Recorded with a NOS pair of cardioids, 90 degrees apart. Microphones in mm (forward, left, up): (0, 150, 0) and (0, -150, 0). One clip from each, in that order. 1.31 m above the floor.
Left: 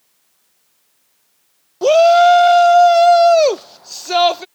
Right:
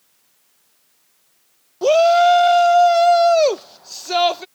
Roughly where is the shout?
Ahead.